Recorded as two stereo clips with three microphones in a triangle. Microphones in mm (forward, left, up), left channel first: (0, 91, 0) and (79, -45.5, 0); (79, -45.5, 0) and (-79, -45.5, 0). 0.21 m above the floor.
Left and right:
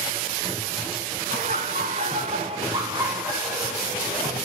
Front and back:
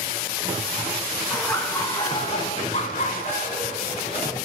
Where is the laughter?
80° right, 2 m; by 4.3 s 35° left, 3 m.